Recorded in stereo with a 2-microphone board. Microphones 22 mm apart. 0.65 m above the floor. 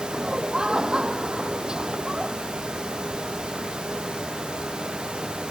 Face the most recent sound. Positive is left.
turn(degrees=-35)  # may be behind; listen again after turning